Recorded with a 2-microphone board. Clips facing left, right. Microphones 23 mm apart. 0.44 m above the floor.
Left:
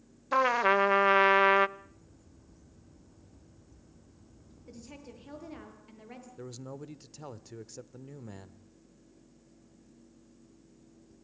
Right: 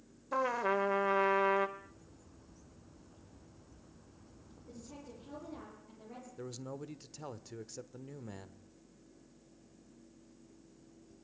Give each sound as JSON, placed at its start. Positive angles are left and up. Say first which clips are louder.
{"t": 0.3, "sound": "a trumpet", "louder": "left 7 dB", "side_deg": 60, "distance_m": 0.6}
{"t": 1.8, "sound": "a bird", "louder": "even", "side_deg": -45, "distance_m": 4.0}
{"t": 4.7, "sound": "a woman speaking", "louder": "left 2 dB", "side_deg": 70, "distance_m": 8.0}
{"t": 6.4, "sound": "a man speaking", "louder": "even", "side_deg": 0, "distance_m": 1.0}